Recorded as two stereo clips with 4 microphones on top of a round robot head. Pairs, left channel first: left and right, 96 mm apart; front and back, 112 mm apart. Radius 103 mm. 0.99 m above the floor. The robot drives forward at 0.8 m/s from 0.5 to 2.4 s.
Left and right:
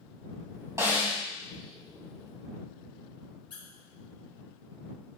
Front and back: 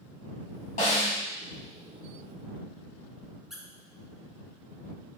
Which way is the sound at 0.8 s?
35° right.